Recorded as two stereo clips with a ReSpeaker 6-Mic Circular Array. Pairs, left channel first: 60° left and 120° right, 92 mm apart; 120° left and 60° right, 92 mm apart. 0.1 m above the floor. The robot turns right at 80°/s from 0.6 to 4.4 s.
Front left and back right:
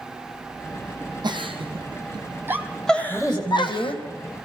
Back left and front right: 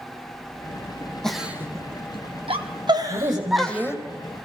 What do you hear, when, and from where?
1.2 s a giggle: 155° right, 1.7 m; by 4.0 s 60° left, 1.7 m
3.1 s a woman speaking: 30° right, 4.5 m; by 4.0 s 45° left, 4.5 m